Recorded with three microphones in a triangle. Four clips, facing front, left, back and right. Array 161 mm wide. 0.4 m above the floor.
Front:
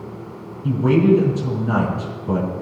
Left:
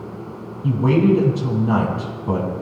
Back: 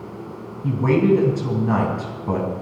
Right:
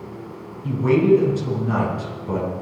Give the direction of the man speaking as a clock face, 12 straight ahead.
8 o'clock.